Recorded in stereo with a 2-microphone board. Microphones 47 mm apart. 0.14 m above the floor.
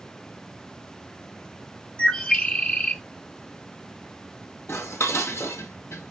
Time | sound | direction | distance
2.0 | a bird | 30° left (ahead or behind) | 1.7 m
4.7 | dishes clattering | 75° left (ahead or behind) | 3 m